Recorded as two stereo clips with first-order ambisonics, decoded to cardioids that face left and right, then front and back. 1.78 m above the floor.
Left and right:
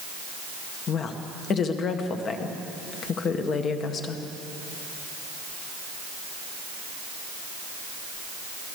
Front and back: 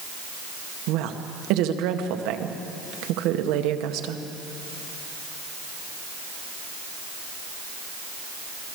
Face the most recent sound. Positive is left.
turn(degrees=150)